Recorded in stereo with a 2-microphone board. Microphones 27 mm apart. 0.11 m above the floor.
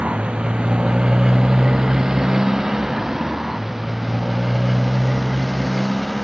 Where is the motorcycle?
45° right (ahead or behind); by 6.2 s 5° left (ahead or behind).